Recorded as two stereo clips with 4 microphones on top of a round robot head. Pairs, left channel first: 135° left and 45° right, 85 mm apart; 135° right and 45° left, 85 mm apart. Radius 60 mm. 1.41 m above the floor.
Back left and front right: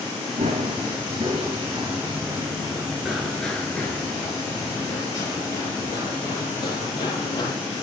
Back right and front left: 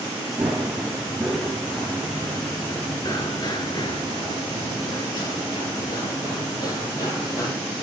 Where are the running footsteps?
35° right, 2.0 m; by 7.5 s 175° left, 3.5 m.